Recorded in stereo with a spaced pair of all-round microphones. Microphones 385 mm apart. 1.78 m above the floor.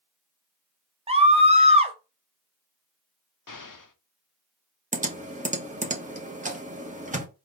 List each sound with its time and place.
1.1 s a scream: 15° right (ahead or behind), 0.5 m
3.5 s an explosion: 55° left (ahead or behind), 0.6 m
4.9 s typing on a keyboard: 20° right (ahead or behind), 0.8 m